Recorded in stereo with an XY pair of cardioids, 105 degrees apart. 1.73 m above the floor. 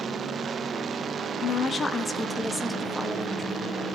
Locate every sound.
1.4 s a woman speaking: 45° left, 1.0 m; by 3.8 s 25° right, 1.9 m